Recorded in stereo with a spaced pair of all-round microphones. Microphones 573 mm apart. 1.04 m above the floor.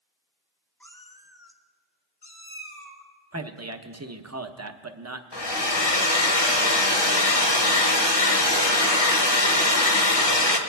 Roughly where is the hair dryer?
Left.